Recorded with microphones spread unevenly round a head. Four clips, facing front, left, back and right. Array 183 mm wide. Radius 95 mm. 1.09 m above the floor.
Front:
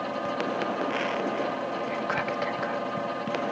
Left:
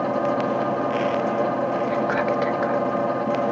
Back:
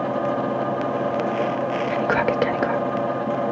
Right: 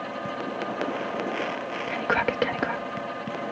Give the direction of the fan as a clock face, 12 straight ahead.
8 o'clock.